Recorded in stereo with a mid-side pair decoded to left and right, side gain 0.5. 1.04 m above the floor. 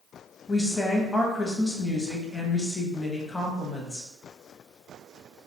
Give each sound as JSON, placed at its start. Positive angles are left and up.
{"t": 0.5, "sound": "a woman speaking", "azimuth_deg": 20, "distance_m": 1.0}